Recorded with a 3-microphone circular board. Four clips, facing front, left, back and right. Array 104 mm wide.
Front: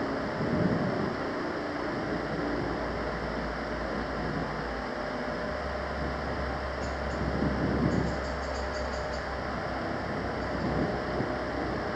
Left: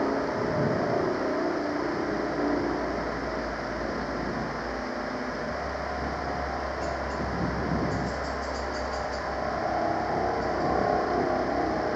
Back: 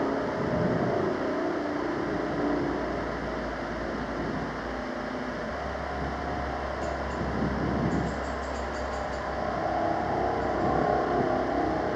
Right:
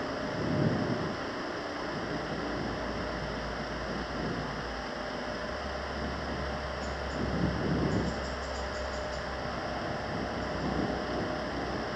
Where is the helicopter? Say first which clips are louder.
Left 7 dB, back 3 dB; 115° left; by 12.0 s 130° left.